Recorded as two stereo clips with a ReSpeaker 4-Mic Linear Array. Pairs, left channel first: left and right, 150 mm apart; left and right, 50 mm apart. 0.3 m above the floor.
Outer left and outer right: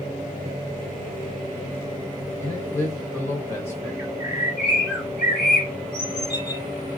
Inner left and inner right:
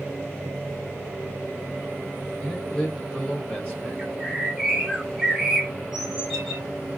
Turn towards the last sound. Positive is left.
turn(degrees=-15)  # may be behind; listen again after turning